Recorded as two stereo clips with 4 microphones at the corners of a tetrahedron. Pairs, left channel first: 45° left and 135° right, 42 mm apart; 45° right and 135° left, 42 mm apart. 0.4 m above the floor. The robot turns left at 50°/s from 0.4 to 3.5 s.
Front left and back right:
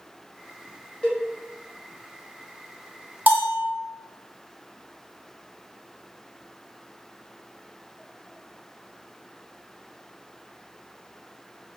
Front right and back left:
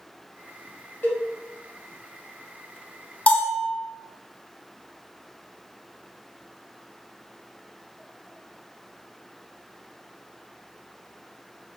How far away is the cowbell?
About 1.2 m.